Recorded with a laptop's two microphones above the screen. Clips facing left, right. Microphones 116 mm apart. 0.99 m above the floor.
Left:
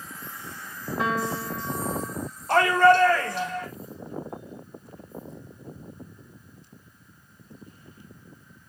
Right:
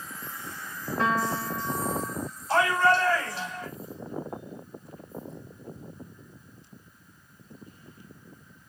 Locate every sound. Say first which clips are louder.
1.0 s a piano: right 1 dB; 5° left (ahead or behind), 2.5 m
2.5 s a shout: left 5 dB; 65° left (ahead or behind), 4 m